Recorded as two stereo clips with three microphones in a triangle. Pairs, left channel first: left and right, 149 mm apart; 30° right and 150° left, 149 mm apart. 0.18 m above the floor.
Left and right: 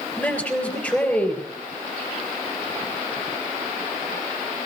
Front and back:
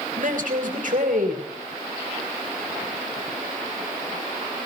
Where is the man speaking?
170° left, 3.5 m.